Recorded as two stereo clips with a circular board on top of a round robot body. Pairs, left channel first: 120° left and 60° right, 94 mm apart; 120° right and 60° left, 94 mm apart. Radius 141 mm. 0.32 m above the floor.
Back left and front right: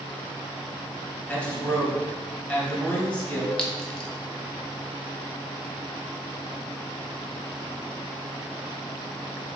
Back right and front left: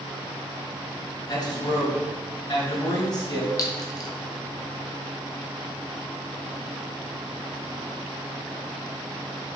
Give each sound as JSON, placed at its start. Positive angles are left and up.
{"t": 1.3, "sound": "a man speaking", "azimuth_deg": -165, "distance_m": 2.5}
{"t": 3.6, "sound": "a clink", "azimuth_deg": -160, "distance_m": 1.3}